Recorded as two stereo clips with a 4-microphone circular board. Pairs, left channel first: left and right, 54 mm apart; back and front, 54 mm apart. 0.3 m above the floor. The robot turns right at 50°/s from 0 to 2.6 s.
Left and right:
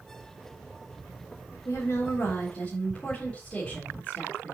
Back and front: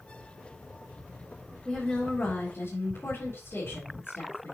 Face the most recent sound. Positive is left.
turn(degrees=155)